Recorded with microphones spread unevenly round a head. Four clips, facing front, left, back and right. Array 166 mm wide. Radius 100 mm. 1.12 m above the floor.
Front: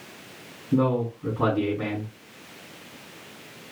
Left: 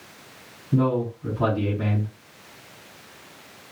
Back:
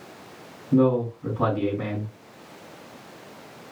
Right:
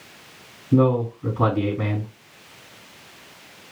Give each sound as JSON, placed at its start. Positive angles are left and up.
{"t": 0.7, "sound": "a man speaking", "azimuth_deg": -75, "distance_m": 4.0}